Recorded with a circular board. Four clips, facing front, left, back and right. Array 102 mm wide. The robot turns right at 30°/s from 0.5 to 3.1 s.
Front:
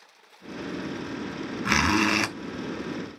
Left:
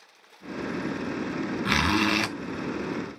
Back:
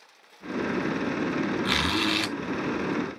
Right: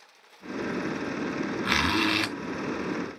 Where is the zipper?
Straight ahead, 1.1 m; by 2.3 s 20° left, 1.1 m.